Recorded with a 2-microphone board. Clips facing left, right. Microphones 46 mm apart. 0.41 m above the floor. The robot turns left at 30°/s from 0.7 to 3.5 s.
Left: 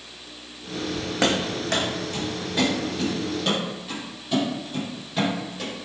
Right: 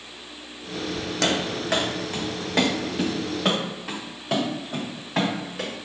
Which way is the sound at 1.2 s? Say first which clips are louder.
Left 1 dB; 20° left (ahead or behind).